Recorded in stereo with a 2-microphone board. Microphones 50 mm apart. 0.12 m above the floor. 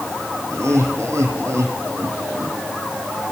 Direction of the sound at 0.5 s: 65° right (ahead or behind).